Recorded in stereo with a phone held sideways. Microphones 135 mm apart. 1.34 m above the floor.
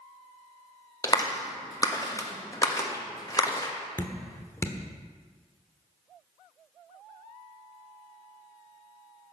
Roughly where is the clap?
Left.